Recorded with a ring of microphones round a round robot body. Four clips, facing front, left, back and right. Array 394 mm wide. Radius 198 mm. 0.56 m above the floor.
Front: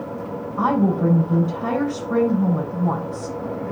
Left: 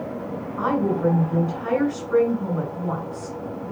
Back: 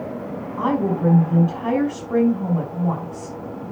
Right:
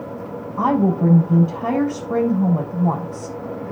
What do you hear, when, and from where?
0.6 s a woman speaking: 80° right, 5.5 m